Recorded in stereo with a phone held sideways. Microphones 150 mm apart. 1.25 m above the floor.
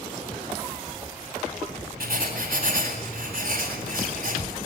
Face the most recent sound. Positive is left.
turn(degrees=-75)  # may be behind; listen again after turning